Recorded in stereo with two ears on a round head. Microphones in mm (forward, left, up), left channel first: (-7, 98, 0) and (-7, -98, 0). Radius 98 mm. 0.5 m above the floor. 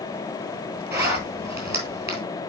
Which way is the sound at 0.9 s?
15° right (ahead or behind).